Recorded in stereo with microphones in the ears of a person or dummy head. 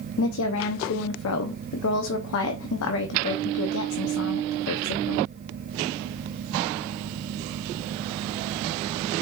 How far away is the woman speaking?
About 0.6 m.